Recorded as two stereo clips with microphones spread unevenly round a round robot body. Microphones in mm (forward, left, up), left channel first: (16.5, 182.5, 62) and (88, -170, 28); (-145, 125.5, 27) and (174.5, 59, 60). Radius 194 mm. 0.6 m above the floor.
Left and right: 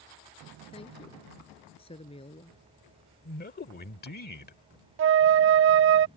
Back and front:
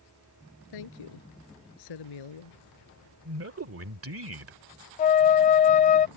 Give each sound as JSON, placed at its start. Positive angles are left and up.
{"t": 0.7, "sound": "a woman speaking", "azimuth_deg": 180}
{"t": 3.2, "sound": "a man speaking", "azimuth_deg": 35}
{"t": 5.0, "sound": "a flute", "azimuth_deg": -130}